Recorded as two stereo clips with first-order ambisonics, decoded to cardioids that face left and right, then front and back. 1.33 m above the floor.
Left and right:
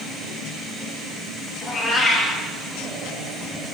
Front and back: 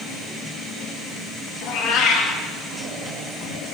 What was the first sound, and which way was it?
A cat meowing, 25° left.